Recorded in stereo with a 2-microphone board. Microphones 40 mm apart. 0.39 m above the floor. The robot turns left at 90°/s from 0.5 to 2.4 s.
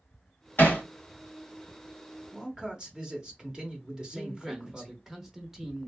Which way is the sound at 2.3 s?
20° right (ahead or behind).